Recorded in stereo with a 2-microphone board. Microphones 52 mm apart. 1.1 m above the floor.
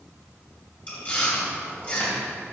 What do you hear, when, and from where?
0.9 s chewing: 30° left (ahead or behind), 2.5 m